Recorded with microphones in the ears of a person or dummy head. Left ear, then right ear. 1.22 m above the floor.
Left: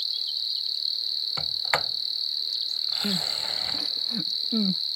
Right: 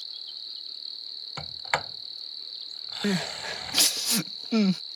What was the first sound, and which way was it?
An insect, 35° left (ahead or behind).